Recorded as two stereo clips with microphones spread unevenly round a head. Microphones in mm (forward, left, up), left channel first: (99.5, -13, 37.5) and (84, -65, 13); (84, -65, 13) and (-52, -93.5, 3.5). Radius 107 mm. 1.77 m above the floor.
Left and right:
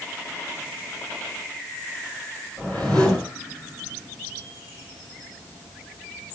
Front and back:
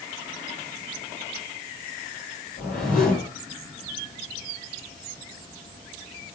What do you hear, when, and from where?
2.6 s a whoosh: straight ahead, 5.5 m